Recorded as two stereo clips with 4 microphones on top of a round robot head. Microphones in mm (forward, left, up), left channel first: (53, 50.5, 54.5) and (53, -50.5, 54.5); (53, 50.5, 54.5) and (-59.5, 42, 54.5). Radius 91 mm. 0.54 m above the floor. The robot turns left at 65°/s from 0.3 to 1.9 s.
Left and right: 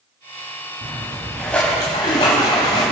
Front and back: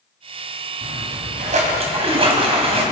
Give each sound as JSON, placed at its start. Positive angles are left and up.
{"t": 0.8, "sound": "a splash", "azimuth_deg": -140, "distance_m": 2.5}